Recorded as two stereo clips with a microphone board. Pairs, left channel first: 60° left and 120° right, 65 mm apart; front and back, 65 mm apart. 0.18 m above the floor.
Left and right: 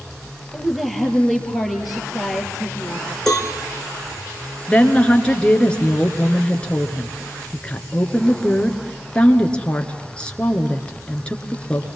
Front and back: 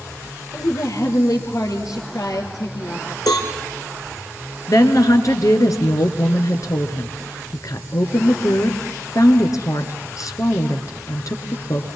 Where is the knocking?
I don't hear knocking.